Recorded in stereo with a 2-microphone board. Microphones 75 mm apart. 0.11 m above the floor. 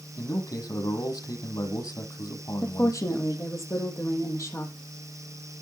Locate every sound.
0.2 s a man speaking: 60° left (ahead or behind), 3.5 m
2.6 s a woman speaking: 40° left (ahead or behind), 3 m